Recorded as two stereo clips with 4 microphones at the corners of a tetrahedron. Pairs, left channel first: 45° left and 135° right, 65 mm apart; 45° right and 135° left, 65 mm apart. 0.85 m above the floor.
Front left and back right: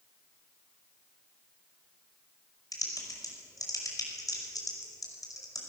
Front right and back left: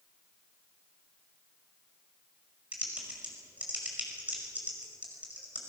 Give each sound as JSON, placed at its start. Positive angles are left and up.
{"t": 2.7, "sound": "typing on a keyboard", "azimuth_deg": 65, "distance_m": 5.0}